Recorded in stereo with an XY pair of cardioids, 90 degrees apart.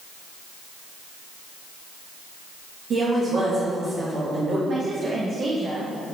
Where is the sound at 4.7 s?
55° right, 1.0 m.